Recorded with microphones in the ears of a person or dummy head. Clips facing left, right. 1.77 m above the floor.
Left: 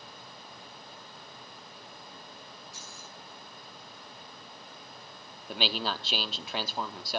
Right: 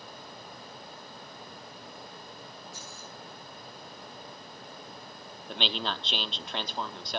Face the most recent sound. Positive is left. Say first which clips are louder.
# left 1 dB
turn(degrees=5)  # may be behind; listen again after turning